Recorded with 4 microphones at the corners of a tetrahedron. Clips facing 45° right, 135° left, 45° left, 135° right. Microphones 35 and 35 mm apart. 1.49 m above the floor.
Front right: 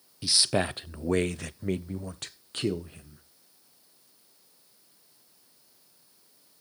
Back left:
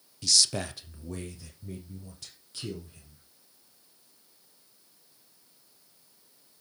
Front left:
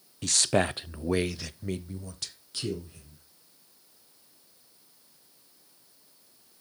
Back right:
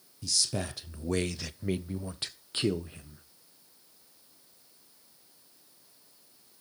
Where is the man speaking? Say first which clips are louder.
Front right 2 dB, front left 7 dB; 20° left, 0.7 m; by 3.2 s 90° right, 1.4 m.